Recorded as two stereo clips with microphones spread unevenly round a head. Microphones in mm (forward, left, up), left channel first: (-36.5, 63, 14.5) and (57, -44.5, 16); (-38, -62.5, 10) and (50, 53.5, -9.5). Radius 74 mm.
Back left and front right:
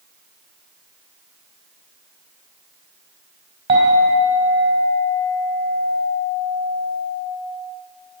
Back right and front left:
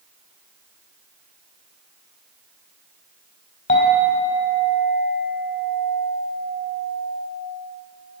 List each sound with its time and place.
3.7 s a clink: 105° right, 4 m